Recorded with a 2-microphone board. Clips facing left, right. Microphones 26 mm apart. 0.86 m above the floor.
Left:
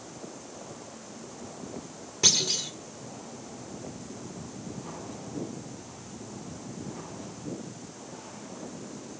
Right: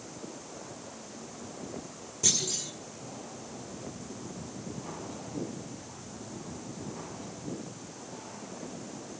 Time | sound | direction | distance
2.2 | a clunk | 45° left (ahead or behind) | 2.5 m